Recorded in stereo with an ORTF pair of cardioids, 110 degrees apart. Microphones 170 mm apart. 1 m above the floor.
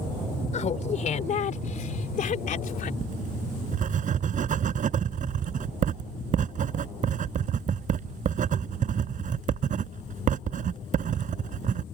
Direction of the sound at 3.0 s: 45° right.